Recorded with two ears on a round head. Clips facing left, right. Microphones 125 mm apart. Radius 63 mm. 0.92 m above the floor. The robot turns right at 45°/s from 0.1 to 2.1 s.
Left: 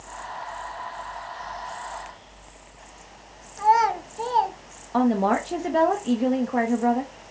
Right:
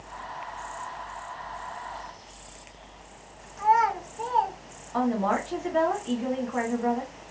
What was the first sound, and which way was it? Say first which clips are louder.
A child speaking: left 3 dB; 40° left (ahead or behind).